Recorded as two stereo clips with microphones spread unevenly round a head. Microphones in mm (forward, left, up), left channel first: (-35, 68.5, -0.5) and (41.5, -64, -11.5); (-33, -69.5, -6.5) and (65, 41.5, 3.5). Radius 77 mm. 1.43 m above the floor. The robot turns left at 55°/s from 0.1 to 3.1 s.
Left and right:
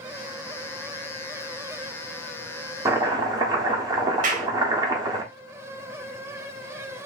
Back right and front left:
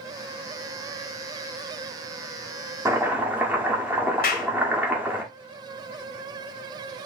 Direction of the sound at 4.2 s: 105° right.